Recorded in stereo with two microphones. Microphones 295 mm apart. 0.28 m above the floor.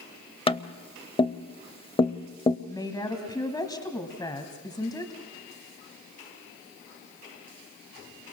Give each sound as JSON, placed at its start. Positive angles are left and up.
{"t": 0.5, "sound": "tapping", "side_deg": 20, "distance_m": 0.6}
{"t": 2.7, "sound": "a woman speaking", "side_deg": 15, "distance_m": 1.8}